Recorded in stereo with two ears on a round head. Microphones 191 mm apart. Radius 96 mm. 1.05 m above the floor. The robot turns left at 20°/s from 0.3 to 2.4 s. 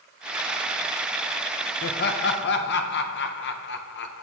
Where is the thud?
No thud in this recording.